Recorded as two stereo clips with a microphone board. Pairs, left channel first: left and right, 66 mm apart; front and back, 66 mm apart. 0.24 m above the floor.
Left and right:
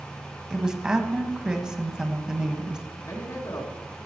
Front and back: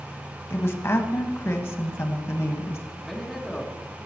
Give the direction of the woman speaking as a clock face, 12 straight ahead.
1 o'clock.